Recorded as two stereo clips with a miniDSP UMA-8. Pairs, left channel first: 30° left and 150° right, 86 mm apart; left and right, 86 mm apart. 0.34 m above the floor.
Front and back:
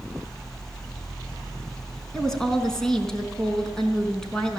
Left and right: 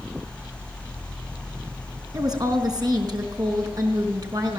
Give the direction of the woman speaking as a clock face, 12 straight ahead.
2 o'clock.